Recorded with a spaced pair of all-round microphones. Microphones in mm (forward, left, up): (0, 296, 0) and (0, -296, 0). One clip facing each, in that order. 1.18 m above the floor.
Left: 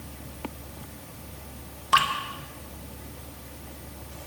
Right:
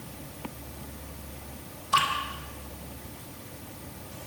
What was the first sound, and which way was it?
Dripping, 80° left.